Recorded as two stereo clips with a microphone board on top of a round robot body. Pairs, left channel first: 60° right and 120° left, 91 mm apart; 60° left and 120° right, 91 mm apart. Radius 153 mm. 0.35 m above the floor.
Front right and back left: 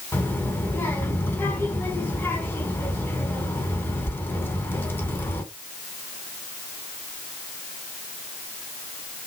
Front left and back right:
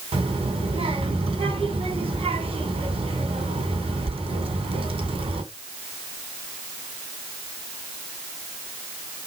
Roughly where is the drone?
No drone in this recording.